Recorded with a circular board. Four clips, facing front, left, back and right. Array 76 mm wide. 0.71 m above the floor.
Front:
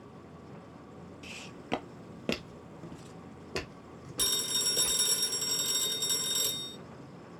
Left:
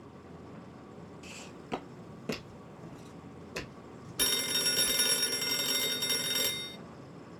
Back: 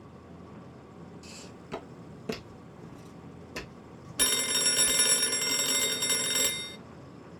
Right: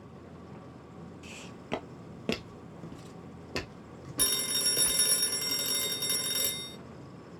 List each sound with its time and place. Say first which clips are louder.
1.2 s footsteps: right 1 dB, front 2 dB; 5° right, 0.8 m; by 5.0 s 60° right, 2.5 m
4.2 s a phone ringing: left 2 dB, back 7 dB; 165° left, 0.8 m